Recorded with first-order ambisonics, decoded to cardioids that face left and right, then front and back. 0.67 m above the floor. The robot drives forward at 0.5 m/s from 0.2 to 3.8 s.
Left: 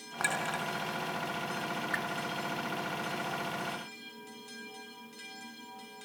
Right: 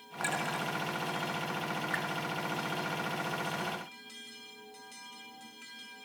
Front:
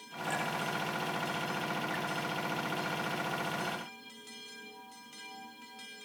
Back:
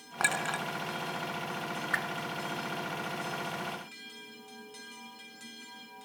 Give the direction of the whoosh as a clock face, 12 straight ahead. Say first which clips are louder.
Left 1 dB, back 5 dB; 6 o'clock.